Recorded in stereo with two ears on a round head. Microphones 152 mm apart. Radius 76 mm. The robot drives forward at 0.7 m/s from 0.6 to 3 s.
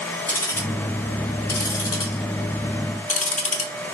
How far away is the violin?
I don't hear a violin.